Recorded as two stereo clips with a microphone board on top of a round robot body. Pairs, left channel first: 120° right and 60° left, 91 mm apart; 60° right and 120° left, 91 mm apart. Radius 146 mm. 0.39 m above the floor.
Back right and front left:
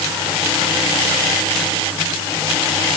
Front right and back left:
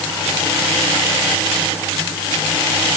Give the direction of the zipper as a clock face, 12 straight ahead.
I don't hear a zipper.